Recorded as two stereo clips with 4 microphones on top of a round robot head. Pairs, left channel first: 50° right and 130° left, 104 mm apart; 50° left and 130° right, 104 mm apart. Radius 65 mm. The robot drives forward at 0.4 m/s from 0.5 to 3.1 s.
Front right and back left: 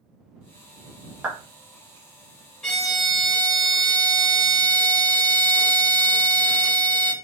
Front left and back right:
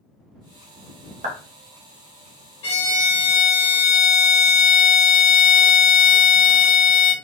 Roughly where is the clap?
Behind right.